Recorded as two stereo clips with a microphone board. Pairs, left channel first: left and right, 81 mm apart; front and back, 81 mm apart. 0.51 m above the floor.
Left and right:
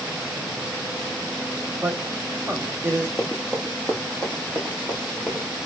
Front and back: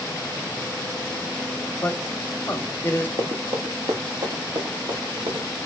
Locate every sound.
1.8 s a man speaking: 55° right, 0.7 m
3.2 s running footsteps: 175° left, 0.7 m; by 5.5 s 170° left, 2 m